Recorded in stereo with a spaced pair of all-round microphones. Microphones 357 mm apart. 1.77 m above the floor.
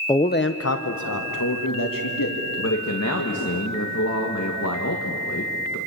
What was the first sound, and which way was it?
A man speaking, 10° left (ahead or behind).